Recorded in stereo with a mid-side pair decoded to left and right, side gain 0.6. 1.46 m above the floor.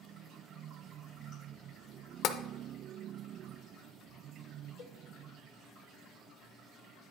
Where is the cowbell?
50° left, 0.7 m.